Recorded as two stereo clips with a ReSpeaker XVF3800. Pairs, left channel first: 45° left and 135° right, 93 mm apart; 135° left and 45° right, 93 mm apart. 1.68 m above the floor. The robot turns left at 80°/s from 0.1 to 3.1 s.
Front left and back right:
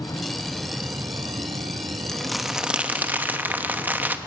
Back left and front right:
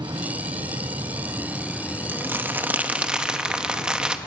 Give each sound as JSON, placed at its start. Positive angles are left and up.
{"t": 0.0, "sound": "an insect", "azimuth_deg": -5, "distance_m": 1.5}
{"t": 2.1, "sound": "crumpling", "azimuth_deg": -30, "distance_m": 1.0}